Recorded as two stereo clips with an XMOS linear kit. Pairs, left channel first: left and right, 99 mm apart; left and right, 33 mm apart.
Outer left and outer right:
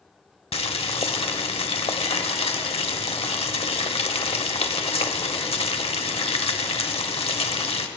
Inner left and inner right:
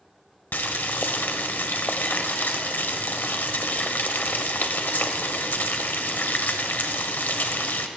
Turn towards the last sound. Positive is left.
turn(degrees=75)  # may be behind; listen again after turning